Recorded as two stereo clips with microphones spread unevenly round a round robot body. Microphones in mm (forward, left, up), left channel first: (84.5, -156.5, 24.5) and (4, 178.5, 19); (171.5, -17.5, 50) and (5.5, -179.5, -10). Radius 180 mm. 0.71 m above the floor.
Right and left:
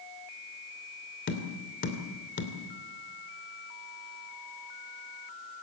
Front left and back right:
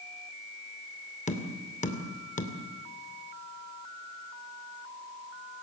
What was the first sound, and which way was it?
Tapping, 20° right.